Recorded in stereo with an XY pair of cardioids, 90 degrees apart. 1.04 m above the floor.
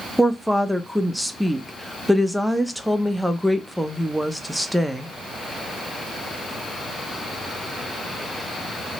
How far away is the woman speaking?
About 0.6 m.